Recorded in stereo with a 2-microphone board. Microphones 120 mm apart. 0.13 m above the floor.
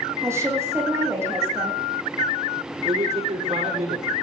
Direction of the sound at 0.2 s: 25° right (ahead or behind).